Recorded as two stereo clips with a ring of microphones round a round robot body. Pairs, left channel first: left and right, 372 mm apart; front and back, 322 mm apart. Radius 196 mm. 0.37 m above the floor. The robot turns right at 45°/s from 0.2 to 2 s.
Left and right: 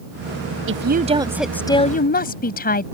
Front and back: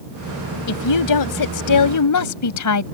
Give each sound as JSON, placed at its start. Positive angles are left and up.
{"t": 0.7, "sound": "a woman speaking", "azimuth_deg": -35}